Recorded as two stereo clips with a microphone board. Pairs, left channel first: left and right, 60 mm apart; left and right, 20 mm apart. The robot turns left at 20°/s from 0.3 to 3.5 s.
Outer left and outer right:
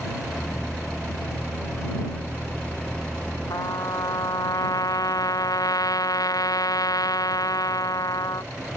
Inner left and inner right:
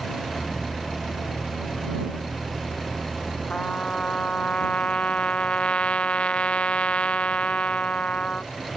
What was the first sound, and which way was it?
A trumpet, 85° left.